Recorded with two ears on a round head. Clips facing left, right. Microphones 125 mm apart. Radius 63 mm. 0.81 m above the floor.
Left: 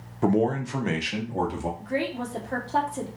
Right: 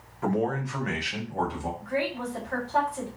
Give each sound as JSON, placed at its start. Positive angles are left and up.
{"t": 0.2, "sound": "a man speaking", "side_deg": 35, "distance_m": 0.6}
{"t": 1.8, "sound": "a woman speaking", "side_deg": 35, "distance_m": 1.1}